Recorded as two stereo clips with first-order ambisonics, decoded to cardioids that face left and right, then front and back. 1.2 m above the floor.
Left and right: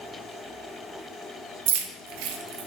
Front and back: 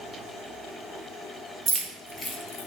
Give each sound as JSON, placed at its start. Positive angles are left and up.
{"t": 1.7, "sound": "keys jangling", "azimuth_deg": -110, "distance_m": 0.7}